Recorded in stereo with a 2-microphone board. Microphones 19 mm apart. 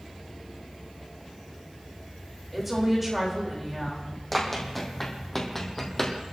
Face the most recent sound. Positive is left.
turn(degrees=25)  # may be behind; listen again after turning